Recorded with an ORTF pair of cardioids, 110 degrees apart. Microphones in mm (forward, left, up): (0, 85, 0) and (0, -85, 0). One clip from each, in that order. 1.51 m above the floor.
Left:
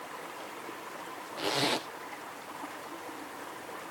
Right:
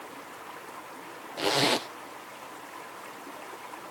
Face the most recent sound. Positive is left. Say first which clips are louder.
# right 5 dB
turn(degrees=-25)